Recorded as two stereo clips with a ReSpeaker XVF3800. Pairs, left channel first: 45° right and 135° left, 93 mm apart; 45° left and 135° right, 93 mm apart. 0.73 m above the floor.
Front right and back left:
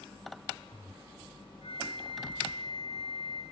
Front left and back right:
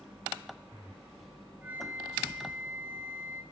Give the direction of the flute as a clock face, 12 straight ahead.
2 o'clock.